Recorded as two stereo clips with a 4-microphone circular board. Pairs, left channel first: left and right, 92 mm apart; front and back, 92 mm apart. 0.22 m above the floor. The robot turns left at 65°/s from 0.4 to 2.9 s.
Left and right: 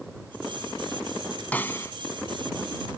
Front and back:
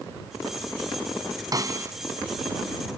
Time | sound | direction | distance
1.5 | a snare drum | 155° left | ?